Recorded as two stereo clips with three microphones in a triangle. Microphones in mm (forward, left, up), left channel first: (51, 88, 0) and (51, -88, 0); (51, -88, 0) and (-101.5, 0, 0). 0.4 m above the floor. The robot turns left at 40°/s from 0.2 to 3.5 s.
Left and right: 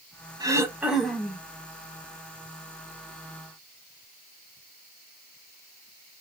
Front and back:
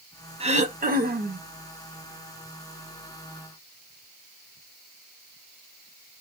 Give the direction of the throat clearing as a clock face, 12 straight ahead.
5 o'clock.